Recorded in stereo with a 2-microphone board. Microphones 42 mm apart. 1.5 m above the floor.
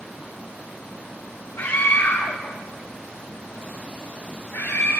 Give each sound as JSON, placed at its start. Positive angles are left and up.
{"t": 1.6, "sound": "a scream", "side_deg": 70, "distance_m": 3.0}